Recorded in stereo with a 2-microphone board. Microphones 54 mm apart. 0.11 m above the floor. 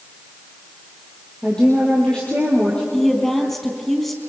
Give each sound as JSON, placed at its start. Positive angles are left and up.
{"t": 1.4, "sound": "a woman speaking", "side_deg": 15, "distance_m": 3.5}
{"t": 2.9, "sound": "a woman speaking", "side_deg": 5, "distance_m": 3.5}